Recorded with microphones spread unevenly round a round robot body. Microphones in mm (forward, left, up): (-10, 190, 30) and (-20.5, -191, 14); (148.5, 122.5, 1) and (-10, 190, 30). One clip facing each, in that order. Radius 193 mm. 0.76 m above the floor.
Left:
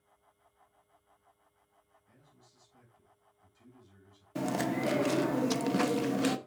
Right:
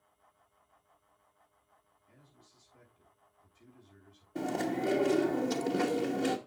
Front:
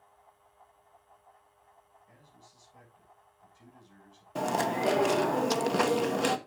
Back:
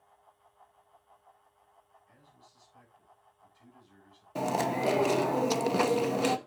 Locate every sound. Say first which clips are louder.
2.1 s a man speaking: right 2 dB, front 3 dB; 15° left, 6.5 m
4.3 s chewing: left 1 dB, even; 60° left, 0.9 m